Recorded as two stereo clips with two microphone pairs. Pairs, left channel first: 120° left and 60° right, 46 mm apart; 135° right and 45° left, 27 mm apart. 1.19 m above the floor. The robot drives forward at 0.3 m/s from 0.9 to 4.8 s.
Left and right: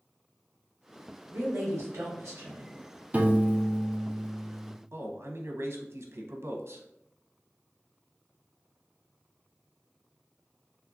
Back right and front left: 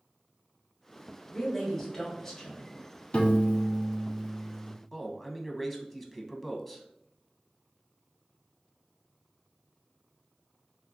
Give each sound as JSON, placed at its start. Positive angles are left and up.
{"t": 1.3, "sound": "a woman speaking", "azimuth_deg": -50, "distance_m": 1.5}
{"t": 3.1, "sound": "a piano", "azimuth_deg": -110, "distance_m": 0.6}
{"t": 4.9, "sound": "a man speaking", "azimuth_deg": -55, "distance_m": 0.6}